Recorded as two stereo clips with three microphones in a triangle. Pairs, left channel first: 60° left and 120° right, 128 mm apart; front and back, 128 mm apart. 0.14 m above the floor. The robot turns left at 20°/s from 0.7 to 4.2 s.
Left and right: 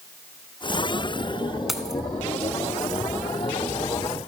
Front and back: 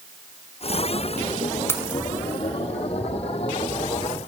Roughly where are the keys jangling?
Ahead right.